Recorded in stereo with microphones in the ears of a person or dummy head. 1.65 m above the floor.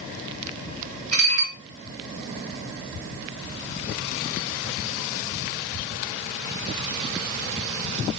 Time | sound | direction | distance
1.1 | dishes clattering | 60° right (ahead or behind) | 1.7 m